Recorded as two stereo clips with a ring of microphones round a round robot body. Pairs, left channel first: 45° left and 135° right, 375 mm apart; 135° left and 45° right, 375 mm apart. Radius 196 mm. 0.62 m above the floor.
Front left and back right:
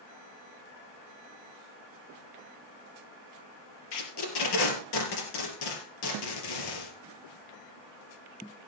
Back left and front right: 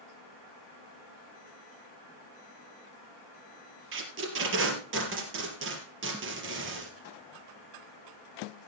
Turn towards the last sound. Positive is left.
turn(degrees=15)